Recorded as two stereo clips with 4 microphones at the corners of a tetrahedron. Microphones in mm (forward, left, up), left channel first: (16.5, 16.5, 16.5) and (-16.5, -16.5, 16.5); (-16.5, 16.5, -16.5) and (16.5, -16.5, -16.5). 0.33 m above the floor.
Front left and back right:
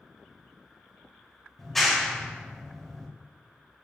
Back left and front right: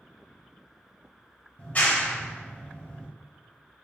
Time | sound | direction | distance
1.6 | a clap | 125° left | 1.2 m